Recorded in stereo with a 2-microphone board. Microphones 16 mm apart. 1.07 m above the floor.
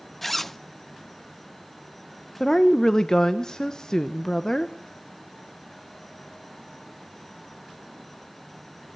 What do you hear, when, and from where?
0.2 s a zipper: 15° left (ahead or behind), 0.5 m
2.4 s a woman speaking: 35° left (ahead or behind), 1.0 m